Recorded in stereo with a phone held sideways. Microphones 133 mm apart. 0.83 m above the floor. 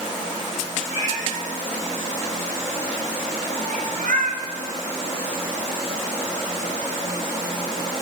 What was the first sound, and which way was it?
A cat meowing, 85° right.